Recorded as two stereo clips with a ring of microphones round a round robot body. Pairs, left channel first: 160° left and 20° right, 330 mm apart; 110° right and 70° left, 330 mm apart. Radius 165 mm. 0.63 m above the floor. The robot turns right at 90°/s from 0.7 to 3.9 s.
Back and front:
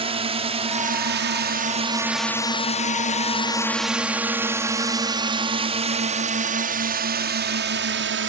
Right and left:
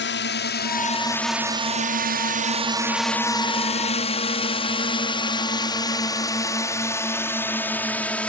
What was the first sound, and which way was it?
A drone, 85° right.